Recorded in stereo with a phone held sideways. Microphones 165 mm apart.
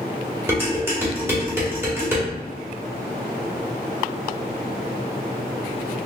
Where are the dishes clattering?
15° right (ahead or behind), 1.3 m.